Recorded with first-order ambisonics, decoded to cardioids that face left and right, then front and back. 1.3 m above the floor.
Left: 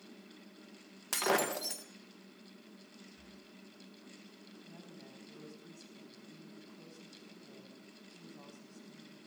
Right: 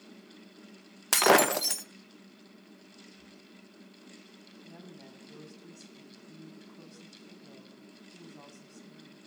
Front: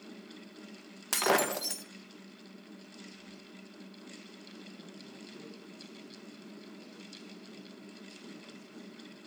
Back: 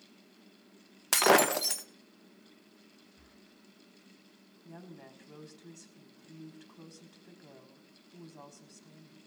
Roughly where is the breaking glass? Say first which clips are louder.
Right 10 dB, back 4 dB; behind right.